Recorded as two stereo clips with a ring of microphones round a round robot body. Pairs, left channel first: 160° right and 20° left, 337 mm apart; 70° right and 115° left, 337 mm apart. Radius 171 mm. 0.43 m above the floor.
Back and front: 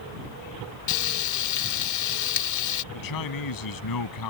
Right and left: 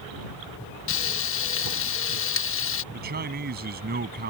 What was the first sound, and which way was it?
Frying, 120° right.